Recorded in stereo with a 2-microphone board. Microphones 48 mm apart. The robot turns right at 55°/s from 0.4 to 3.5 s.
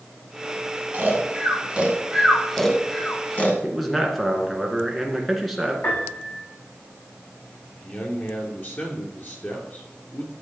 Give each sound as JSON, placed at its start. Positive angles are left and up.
{"t": 0.9, "sound": "snoring", "side_deg": -40, "distance_m": 1.8}
{"t": 3.6, "sound": "a man speaking", "side_deg": 0, "distance_m": 1.8}
{"t": 5.8, "sound": "a piano", "side_deg": 65, "distance_m": 5.0}
{"t": 7.8, "sound": "a man speaking", "side_deg": 45, "distance_m": 3.0}